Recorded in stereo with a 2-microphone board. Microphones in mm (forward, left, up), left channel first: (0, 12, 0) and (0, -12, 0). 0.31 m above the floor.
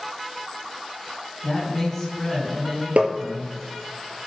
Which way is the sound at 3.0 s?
85° right.